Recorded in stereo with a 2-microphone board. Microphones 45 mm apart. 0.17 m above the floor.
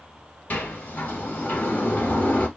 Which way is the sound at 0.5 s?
40° left (ahead or behind).